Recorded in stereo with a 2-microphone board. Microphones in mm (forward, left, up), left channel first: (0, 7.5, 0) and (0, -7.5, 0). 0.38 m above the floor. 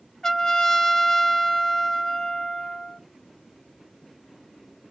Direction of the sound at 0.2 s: 50° left (ahead or behind).